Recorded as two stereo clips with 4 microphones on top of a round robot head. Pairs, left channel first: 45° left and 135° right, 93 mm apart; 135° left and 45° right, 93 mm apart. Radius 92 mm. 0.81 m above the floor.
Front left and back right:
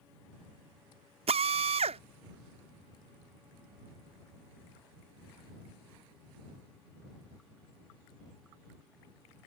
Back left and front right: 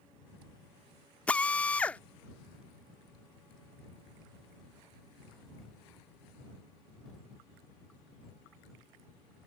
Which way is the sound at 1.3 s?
145° right.